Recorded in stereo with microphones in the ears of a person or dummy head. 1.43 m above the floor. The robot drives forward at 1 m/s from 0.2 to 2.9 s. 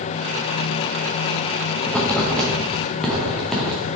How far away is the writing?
About 1.1 m.